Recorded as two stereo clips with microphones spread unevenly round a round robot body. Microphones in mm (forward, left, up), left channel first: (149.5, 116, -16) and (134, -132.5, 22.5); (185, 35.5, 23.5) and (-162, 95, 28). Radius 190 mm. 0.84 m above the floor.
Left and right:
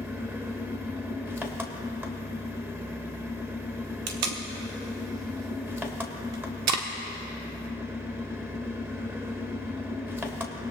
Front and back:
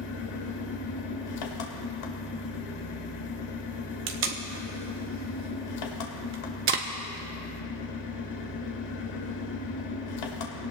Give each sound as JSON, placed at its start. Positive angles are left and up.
{"t": 0.0, "sound": "an engine running", "azimuth_deg": -10, "distance_m": 1.8}
{"t": 4.1, "sound": "tape being pulled", "azimuth_deg": -130, "distance_m": 0.8}